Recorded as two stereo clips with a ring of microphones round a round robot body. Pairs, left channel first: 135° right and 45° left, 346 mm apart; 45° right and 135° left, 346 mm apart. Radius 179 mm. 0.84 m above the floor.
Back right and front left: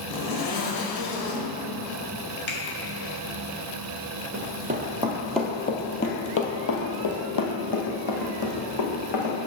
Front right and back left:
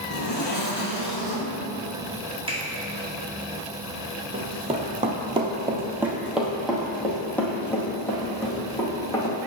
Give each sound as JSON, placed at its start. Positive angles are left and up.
{"t": 0.1, "sound": "a zipper", "azimuth_deg": -105, "distance_m": 1.5}
{"t": 2.5, "sound": "a finger snap", "azimuth_deg": -150, "distance_m": 2.0}
{"t": 4.3, "sound": "running footsteps", "azimuth_deg": 75, "distance_m": 1.0}